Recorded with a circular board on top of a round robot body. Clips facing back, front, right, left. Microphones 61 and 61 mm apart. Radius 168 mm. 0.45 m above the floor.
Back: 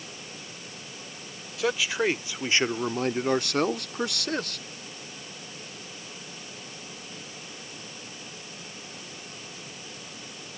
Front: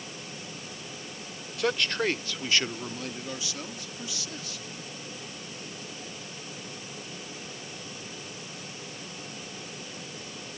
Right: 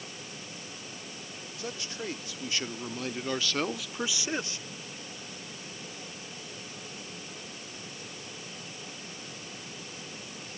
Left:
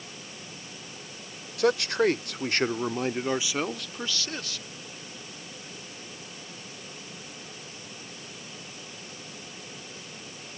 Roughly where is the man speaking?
Left.